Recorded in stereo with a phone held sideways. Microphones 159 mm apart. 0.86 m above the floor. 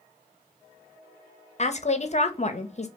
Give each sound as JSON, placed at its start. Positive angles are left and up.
{"t": 1.6, "sound": "a woman speaking", "side_deg": 45, "distance_m": 0.7}